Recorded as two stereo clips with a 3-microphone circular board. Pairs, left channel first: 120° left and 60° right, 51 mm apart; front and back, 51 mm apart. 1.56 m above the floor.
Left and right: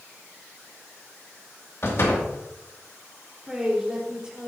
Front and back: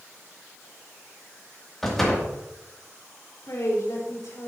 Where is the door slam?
85° left, 2 m.